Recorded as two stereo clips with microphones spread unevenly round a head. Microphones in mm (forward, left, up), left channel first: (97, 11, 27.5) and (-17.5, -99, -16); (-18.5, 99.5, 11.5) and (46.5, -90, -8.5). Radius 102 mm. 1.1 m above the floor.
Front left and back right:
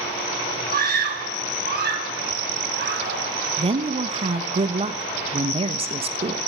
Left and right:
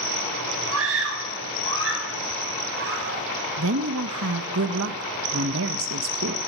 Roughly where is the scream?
Right.